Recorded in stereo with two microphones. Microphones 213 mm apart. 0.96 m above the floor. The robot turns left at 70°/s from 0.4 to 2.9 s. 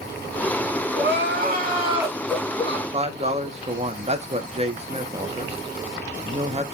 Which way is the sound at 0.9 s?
85° right.